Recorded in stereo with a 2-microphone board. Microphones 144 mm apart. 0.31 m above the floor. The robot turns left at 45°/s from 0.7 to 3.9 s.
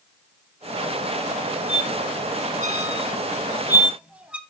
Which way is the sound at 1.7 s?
60° right (ahead or behind).